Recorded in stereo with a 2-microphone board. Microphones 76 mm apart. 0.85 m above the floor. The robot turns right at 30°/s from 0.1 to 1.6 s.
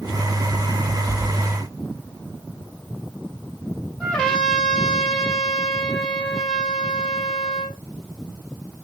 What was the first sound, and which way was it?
A trumpet, 10° left (ahead or behind).